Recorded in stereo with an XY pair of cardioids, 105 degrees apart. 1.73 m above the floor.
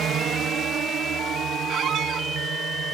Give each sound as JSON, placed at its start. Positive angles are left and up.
{"t": 0.0, "sound": "a drone", "azimuth_deg": -70}
{"t": 1.7, "sound": "a squeak", "azimuth_deg": -70}